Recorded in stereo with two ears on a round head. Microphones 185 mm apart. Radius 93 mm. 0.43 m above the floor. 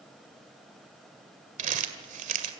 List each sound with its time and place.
1.6 s crumpling: 35° right (ahead or behind), 1.9 m